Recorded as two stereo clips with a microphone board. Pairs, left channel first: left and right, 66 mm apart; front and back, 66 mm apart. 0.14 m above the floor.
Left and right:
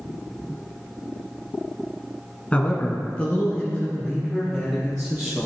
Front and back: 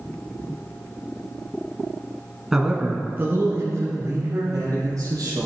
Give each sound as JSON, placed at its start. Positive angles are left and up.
{"t": 2.5, "sound": "a man speaking", "azimuth_deg": 105, "distance_m": 1.3}